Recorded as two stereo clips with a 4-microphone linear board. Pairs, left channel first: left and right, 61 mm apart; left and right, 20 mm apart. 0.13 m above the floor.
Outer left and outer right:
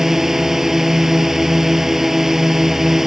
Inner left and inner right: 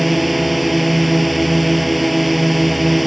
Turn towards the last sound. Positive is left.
turn(degrees=-5)  # may be behind; listen again after turning